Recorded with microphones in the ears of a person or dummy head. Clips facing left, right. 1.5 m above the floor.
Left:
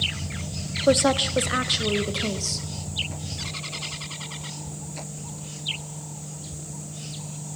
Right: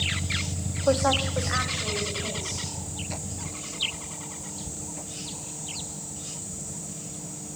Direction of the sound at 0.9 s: 30° left (ahead or behind).